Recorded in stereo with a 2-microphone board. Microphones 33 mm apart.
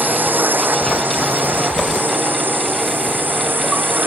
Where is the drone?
80° right.